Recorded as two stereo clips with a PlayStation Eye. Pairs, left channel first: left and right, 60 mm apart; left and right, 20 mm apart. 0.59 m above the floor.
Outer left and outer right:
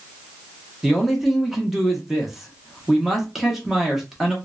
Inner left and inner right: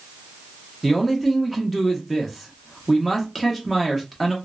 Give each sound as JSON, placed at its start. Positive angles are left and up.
{"t": 0.8, "sound": "a man speaking", "side_deg": -5, "distance_m": 0.8}